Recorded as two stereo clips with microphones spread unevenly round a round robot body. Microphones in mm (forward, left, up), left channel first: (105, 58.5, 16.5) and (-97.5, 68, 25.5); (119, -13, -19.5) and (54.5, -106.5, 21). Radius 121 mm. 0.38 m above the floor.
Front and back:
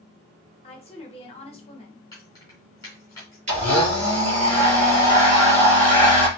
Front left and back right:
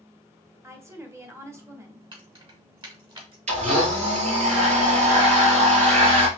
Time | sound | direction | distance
0.6 | a woman speaking | 45° right | 1.5 m
2.1 | keys jangling | 80° right | 3 m
3.5 | a blender | 120° right | 2.5 m